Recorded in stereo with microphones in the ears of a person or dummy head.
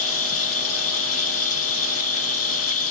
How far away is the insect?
About 1.2 m.